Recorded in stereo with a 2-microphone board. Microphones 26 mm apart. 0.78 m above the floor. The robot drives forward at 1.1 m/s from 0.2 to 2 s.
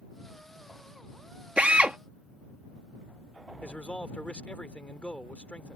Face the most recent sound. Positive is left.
turn(degrees=55)  # may be behind; listen again after turning